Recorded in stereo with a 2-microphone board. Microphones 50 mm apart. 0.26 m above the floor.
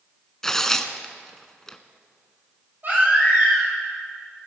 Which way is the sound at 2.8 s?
45° right (ahead or behind).